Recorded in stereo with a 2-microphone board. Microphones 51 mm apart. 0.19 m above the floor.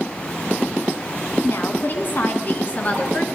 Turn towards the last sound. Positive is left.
turn(degrees=25)  # may be behind; listen again after turning